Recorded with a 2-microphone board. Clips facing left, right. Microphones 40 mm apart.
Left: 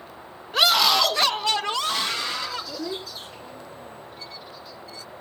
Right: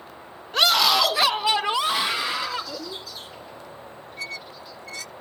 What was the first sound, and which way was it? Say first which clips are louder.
A scream: even; 5° left (ahead or behind).